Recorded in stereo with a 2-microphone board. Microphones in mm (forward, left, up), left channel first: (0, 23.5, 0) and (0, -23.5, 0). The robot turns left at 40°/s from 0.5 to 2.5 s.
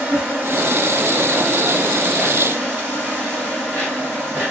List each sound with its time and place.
0.0 s an insect: 40° right, 1.3 m; by 4.5 s 120° right, 1.3 m